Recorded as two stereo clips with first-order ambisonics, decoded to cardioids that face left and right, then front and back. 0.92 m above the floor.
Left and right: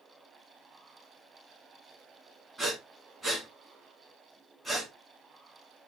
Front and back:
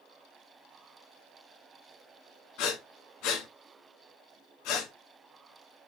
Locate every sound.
2.6 s breathing: 10° right, 2.5 m